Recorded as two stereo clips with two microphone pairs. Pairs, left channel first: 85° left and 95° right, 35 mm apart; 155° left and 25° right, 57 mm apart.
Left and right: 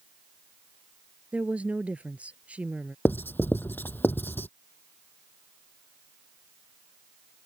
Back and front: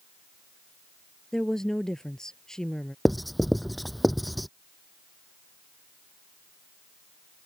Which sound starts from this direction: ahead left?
Writing, at 3.0 s.